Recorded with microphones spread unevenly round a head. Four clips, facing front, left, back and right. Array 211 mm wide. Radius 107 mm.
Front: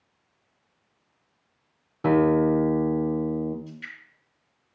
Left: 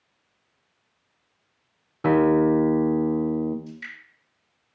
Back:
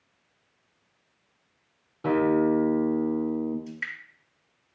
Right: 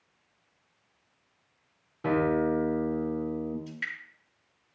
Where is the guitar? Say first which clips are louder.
Left 7 dB, front 2 dB; 70° left, 0.8 m.